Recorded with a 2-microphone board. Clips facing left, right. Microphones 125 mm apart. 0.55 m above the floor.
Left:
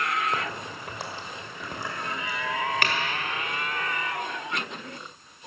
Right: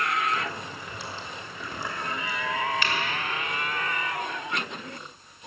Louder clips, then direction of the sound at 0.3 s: Even; 65° left (ahead or behind).